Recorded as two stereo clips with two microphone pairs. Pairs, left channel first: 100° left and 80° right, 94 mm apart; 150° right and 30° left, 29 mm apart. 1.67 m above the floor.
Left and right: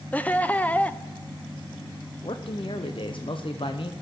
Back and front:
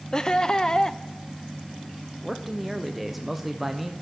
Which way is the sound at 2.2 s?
110° left.